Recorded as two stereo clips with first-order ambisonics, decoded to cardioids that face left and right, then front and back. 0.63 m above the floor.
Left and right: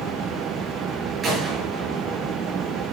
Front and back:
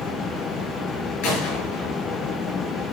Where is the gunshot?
20° right, 8.5 m.